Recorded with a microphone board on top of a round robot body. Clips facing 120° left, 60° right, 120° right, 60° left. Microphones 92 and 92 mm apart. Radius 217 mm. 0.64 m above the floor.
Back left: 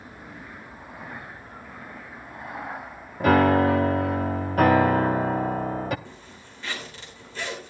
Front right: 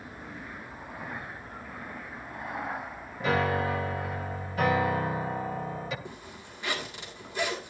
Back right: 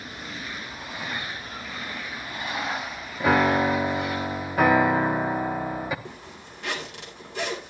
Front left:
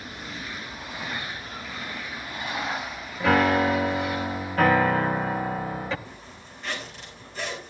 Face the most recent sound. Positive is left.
turn(degrees=-135)